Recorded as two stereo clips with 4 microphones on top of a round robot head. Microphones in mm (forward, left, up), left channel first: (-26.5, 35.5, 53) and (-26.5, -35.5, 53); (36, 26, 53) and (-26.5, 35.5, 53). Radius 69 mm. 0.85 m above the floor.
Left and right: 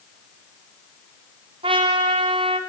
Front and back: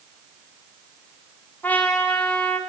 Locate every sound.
1.6 s a trumpet: 80° right, 1.9 m